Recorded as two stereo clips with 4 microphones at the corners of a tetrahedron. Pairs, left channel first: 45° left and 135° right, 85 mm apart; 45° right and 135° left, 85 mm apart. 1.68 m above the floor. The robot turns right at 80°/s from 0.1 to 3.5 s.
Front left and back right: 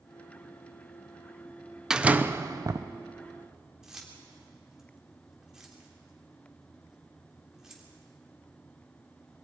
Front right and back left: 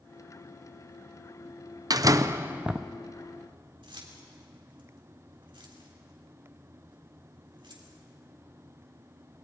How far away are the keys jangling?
About 3 m.